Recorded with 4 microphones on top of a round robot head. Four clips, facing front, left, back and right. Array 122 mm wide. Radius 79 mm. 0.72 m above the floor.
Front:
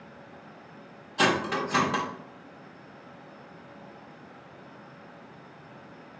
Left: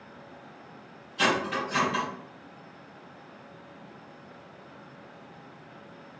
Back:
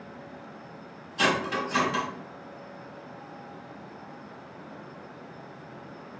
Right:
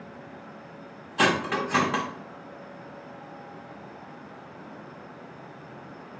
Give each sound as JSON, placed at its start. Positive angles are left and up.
{"t": 1.2, "sound": "cutlery clinking", "azimuth_deg": -65, "distance_m": 0.5}